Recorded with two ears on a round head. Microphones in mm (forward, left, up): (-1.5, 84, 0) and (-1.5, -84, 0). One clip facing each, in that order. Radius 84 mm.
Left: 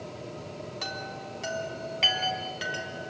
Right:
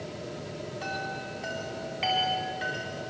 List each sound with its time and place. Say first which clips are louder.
0.8 s a chime: right 3 dB; 60° left (ahead or behind), 4 m